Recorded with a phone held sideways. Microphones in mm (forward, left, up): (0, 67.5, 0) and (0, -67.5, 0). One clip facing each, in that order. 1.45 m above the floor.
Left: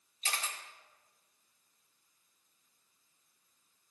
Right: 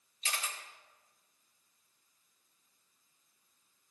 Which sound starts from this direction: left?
A camera shutter, at 0.2 s.